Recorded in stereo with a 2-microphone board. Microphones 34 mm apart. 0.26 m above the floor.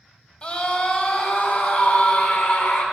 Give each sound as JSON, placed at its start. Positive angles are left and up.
{"t": 0.4, "sound": "a scream", "side_deg": 30, "distance_m": 1.7}